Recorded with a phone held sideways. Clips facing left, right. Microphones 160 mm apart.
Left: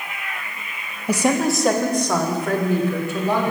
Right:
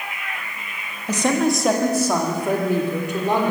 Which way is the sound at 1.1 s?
10° left (ahead or behind).